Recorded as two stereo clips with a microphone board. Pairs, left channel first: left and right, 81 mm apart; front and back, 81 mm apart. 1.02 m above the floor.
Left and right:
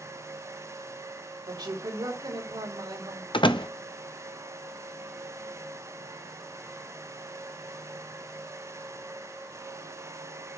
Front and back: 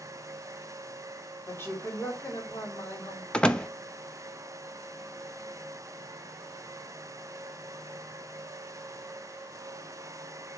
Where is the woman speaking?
60° right, 3 m.